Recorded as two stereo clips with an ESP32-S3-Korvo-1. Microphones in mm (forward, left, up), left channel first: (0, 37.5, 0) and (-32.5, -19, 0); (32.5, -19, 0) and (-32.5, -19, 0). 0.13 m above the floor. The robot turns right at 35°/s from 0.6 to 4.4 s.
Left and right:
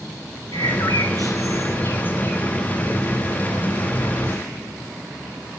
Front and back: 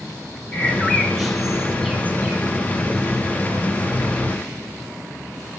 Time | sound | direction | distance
0.5 | a bird | 65° left | 3 m